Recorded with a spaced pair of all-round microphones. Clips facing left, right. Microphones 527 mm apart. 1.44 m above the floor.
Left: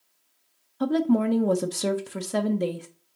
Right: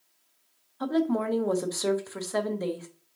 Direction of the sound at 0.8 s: 50° left (ahead or behind).